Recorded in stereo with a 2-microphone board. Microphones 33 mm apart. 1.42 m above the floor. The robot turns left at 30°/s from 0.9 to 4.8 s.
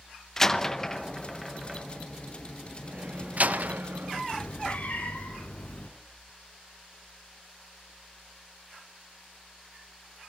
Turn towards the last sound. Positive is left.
turn(degrees=45)  # may be behind; listen again after turning